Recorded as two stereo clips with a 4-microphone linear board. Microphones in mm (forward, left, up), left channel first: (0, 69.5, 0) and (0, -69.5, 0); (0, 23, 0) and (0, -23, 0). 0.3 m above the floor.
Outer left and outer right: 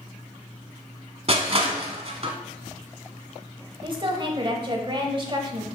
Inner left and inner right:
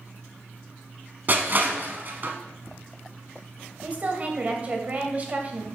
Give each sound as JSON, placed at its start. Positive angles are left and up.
{"t": 1.3, "sound": "crushing", "side_deg": -50, "distance_m": 0.9}
{"t": 3.8, "sound": "a woman speaking", "side_deg": -35, "distance_m": 1.1}